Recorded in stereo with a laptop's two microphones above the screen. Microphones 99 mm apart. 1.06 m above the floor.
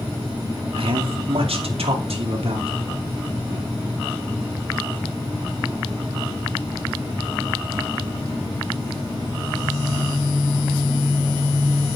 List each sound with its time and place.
0.8 s a man speaking: 65° right (ahead or behind), 2.5 m; by 2.7 s 80° right, 2.5 m